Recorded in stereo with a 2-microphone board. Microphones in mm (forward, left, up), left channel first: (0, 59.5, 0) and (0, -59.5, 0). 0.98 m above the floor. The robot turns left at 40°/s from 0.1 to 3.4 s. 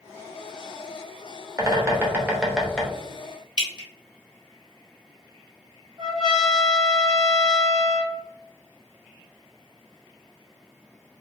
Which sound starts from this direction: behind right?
A bird, at 1.6 s.